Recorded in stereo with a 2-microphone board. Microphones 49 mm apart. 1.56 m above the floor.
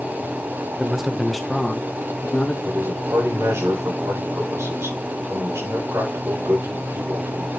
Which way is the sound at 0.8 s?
15° right (ahead or behind).